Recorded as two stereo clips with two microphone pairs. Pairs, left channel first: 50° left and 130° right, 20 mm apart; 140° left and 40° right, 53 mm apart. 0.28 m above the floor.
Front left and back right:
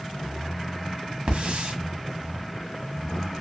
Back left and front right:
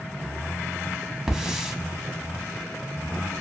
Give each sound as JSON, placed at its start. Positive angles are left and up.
{"t": 1.3, "sound": "a hiss", "azimuth_deg": -120, "distance_m": 0.7}